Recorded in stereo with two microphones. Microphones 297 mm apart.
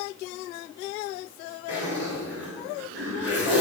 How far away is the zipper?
About 3 m.